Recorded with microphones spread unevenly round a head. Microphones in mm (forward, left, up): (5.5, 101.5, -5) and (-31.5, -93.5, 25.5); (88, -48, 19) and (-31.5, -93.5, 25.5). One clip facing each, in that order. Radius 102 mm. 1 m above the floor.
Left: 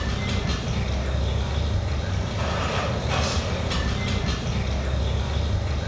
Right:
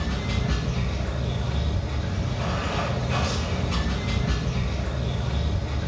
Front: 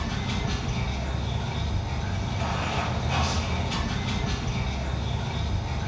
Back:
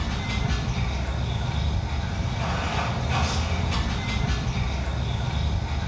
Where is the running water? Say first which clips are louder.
Even, even; 65° left, 1.3 m.